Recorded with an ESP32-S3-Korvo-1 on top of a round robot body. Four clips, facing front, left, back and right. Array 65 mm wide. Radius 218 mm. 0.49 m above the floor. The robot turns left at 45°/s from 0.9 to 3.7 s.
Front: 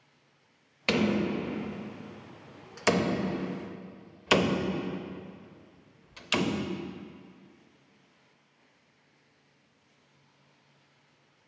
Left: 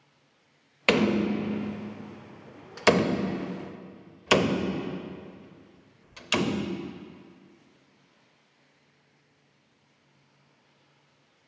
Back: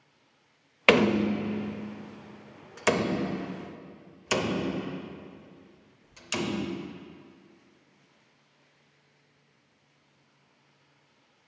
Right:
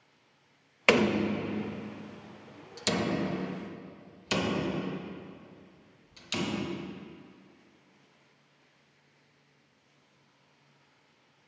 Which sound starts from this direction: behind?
A door slam, at 0.9 s.